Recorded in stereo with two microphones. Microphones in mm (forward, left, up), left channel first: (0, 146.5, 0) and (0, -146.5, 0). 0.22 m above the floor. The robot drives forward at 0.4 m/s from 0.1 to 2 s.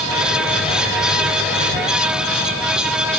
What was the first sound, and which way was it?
Only background noise.